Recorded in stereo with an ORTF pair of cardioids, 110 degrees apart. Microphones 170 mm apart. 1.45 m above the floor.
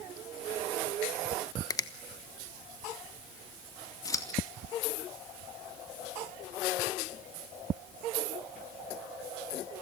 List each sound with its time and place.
1.7 s a finger snap: 20° left, 1.1 m
4.0 s scissors: 20° left, 2.5 m